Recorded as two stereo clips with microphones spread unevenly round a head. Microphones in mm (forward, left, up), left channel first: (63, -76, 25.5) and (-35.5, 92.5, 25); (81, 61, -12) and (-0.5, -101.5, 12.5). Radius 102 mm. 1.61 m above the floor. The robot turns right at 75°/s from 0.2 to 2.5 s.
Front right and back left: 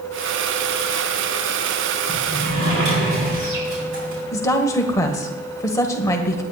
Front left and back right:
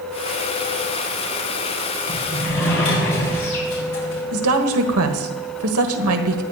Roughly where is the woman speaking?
Behind right.